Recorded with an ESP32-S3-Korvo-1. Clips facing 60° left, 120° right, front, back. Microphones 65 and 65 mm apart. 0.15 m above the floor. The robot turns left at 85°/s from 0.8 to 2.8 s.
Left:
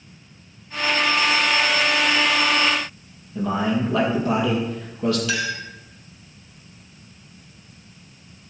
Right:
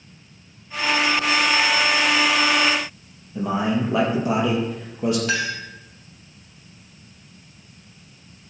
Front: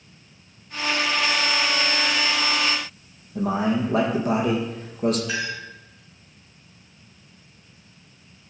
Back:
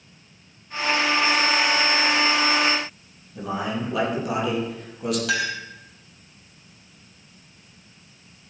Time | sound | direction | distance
3.4 | a man speaking | 50° right | 4 m
5.3 | a clink | 170° right | 2 m